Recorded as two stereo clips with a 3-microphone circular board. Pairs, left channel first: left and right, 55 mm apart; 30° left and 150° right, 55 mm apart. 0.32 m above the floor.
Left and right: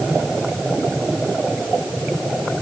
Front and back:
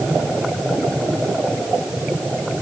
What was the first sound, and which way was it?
Only background noise.